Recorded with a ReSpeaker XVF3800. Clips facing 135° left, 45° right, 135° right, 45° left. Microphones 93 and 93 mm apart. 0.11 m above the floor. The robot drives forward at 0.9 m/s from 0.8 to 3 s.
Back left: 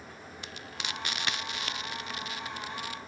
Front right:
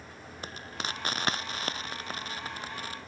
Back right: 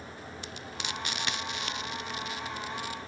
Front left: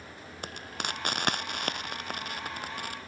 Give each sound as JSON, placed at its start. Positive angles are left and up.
{"t": 0.4, "sound": "frying", "azimuth_deg": 5}